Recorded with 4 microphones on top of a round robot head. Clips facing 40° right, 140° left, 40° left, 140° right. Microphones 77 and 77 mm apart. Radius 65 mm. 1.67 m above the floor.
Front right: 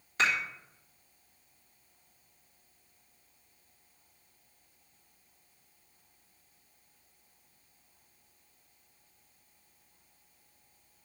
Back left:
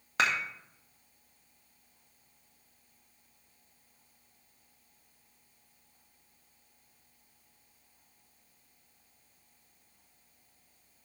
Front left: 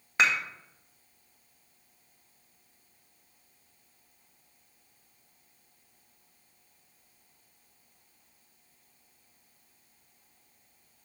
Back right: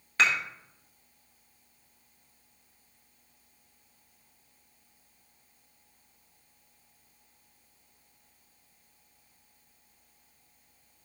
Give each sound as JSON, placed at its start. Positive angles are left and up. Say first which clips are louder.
{"t": 0.2, "sound": "dishes clattering", "louder": "even, even", "azimuth_deg": 110, "distance_m": 1.4}